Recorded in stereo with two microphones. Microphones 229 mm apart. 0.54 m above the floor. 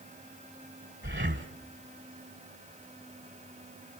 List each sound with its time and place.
1.0 s breathing: 55° right (ahead or behind), 1.6 m